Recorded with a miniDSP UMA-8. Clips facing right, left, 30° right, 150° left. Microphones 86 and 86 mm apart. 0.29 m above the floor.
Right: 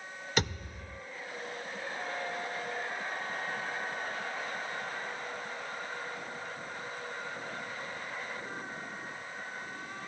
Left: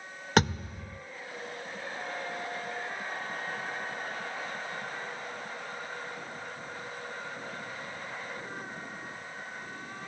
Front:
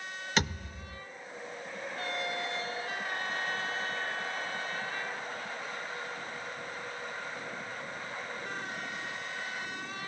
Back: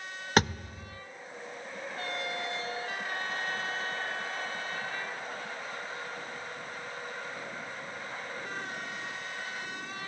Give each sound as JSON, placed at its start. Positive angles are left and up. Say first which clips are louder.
{"t": 0.4, "sound": "a thud", "louder": "left 8 dB, back 6 dB", "azimuth_deg": 110, "distance_m": 1.7}